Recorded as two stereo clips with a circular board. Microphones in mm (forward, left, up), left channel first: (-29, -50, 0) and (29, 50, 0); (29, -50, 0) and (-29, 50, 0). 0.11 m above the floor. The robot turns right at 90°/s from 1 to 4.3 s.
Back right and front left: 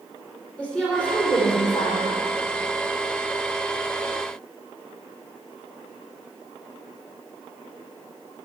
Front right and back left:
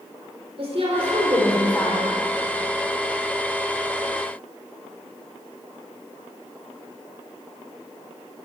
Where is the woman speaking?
160° left, 5 m; by 2.1 s 100° right, 5 m.